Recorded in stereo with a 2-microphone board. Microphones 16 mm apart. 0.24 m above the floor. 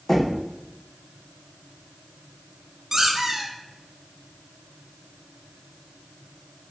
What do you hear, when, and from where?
0.1 s knocking: 25° left (ahead or behind), 1.1 m
2.9 s a squeak: 25° right (ahead or behind), 1.8 m